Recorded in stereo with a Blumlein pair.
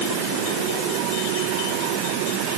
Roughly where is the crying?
I don't hear crying.